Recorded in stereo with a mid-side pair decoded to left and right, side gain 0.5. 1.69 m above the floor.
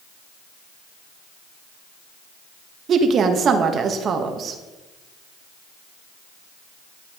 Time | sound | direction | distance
2.9 | a woman speaking | 50° right | 1.7 m